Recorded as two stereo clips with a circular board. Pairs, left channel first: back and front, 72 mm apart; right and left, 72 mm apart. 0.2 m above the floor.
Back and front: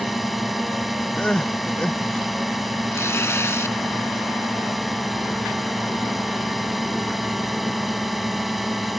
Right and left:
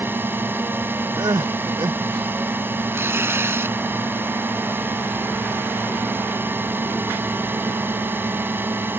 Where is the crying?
105° left.